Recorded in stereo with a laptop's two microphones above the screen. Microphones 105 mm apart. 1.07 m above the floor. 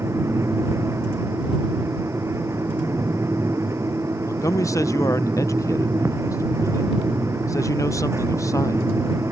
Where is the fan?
25° right (ahead or behind).